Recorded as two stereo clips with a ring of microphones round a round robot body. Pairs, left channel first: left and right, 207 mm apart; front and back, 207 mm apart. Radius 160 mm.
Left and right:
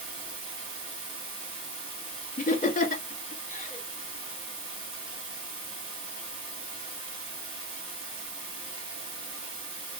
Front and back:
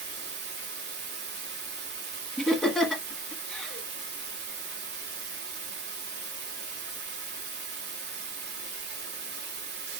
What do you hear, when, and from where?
0.0 s running water: 155° right, 1.5 m
2.4 s laughter: 85° left, 1.4 m